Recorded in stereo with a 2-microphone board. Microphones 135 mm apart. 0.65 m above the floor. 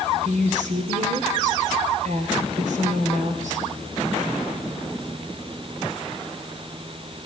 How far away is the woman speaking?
About 2.5 m.